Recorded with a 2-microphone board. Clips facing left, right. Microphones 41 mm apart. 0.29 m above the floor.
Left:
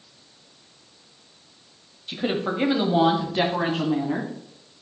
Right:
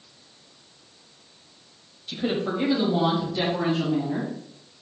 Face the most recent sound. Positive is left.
turn(degrees=65)  # may be behind; listen again after turning